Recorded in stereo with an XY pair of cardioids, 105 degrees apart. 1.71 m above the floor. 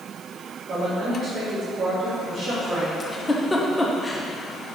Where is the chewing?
I don't hear chewing.